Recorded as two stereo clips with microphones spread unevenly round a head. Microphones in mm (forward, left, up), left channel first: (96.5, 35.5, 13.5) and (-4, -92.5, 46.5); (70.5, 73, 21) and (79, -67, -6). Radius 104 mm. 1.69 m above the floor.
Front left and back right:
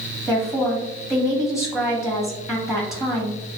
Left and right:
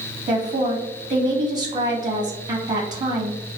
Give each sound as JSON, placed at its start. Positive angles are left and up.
{"t": 0.3, "sound": "a woman speaking", "azimuth_deg": -45, "distance_m": 0.7}